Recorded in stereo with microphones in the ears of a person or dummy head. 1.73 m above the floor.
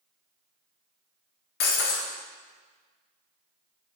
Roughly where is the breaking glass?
Left.